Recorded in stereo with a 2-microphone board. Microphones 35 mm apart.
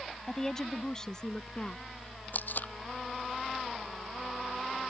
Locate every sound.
0.3 s a woman speaking: 15° left (ahead or behind); by 1.8 s 20° left (ahead or behind)
2.3 s tape being pulled: 55° left (ahead or behind)